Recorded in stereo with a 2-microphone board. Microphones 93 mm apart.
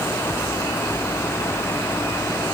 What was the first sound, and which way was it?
Only background noise.